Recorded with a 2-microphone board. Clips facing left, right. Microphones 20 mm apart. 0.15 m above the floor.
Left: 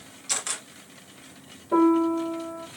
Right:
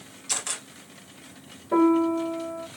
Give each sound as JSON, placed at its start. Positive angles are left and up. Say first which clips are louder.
{"t": 0.3, "sound": "a camera shutter", "louder": "even", "side_deg": 5, "distance_m": 2.0}
{"t": 1.7, "sound": "a piano", "louder": "even", "side_deg": -15, "distance_m": 2.5}